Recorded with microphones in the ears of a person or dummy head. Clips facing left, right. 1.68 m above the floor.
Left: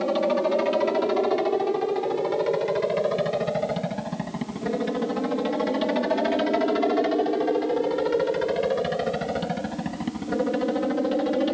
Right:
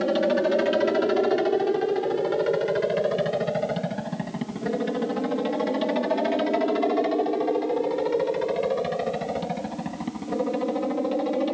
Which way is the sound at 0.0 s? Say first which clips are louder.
Right 1 dB; 10° right (ahead or behind).